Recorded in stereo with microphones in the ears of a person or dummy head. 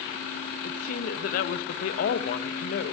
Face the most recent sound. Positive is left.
turn(degrees=50)  # may be behind; listen again after turning